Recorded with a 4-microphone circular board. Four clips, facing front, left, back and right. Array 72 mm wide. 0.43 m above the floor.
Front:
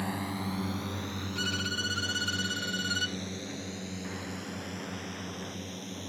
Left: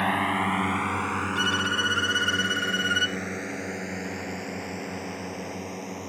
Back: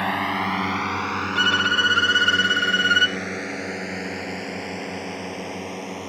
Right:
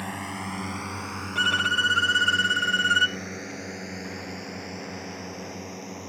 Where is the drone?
140° left; by 6.1 s 175° left.